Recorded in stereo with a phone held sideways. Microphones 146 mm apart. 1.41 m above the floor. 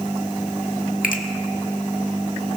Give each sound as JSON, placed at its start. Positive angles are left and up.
{"t": 1.0, "sound": "a finger snap", "side_deg": 70, "distance_m": 1.2}